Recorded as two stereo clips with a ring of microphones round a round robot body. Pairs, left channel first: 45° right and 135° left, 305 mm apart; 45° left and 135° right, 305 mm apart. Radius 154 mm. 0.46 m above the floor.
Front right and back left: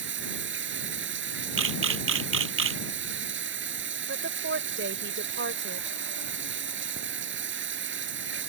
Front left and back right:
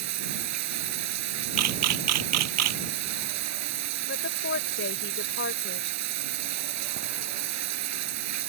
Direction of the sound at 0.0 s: 170° right.